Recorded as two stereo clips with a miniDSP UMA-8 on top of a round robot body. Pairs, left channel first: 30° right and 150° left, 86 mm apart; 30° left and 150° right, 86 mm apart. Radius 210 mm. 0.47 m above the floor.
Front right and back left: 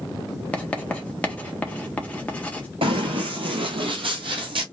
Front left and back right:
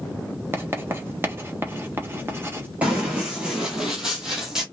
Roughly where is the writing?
Right.